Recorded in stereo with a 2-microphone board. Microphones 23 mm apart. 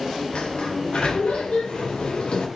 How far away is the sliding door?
About 4 m.